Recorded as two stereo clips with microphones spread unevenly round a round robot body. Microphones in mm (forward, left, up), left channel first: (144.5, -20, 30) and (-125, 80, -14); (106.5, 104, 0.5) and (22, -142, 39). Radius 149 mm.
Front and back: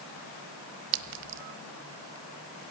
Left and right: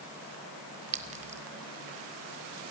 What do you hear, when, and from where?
0.9 s a clink: straight behind, 0.9 m